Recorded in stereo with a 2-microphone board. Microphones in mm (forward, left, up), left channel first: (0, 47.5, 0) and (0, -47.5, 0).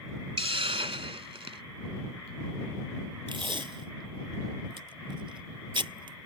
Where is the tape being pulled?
60° right (ahead or behind).